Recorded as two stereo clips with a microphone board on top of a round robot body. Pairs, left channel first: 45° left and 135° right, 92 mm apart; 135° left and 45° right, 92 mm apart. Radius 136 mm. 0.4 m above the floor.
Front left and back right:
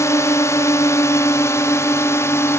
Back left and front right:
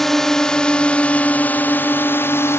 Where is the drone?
50° left; by 2.6 s 90° left.